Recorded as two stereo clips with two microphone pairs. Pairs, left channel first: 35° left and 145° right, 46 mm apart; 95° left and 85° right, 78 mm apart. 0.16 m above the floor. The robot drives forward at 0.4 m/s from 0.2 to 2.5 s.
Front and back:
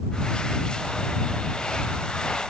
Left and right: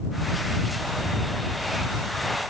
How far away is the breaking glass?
No breaking glass in this recording.